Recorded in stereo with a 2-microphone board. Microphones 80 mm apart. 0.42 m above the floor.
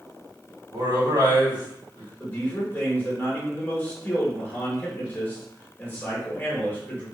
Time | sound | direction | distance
0.7 | a man speaking | 55° right (ahead or behind) | 1.6 m
2.2 | a man speaking | 25° left (ahead or behind) | 1.2 m